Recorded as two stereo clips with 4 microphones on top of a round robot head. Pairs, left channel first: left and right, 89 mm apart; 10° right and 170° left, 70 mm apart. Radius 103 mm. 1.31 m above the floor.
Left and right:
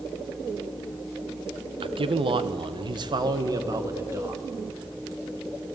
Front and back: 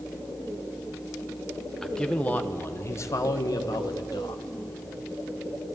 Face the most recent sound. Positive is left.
turn(degrees=-30)